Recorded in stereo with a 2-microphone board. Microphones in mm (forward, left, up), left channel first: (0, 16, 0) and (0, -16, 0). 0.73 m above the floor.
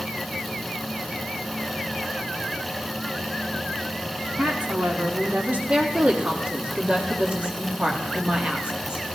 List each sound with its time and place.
4.4 s a woman speaking: 55° right (ahead or behind), 1.8 m; by 5.6 s 65° right (ahead or behind), 2 m
5.7 s a woman speaking: 35° right (ahead or behind), 1.4 m